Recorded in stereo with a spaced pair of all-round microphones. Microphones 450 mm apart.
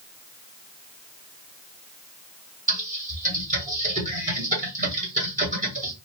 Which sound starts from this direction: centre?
Typing on a keyboard, at 2.7 s.